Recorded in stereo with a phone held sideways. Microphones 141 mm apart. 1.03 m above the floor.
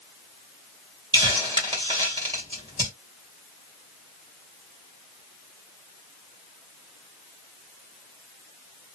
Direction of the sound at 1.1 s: 35° right (ahead or behind).